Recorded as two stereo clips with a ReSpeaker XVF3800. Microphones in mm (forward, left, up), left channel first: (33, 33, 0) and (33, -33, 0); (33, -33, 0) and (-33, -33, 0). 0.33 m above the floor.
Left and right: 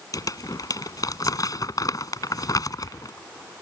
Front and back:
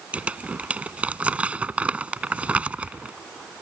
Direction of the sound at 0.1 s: 110° left.